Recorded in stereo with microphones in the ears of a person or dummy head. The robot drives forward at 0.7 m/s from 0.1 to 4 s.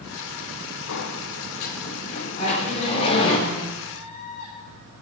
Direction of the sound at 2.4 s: 30° left (ahead or behind).